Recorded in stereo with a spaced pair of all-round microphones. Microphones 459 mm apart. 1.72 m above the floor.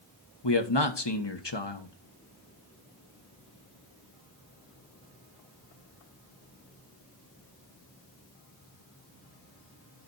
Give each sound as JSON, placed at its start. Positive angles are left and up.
{"t": 0.4, "sound": "a man speaking", "side_deg": 65, "distance_m": 1.5}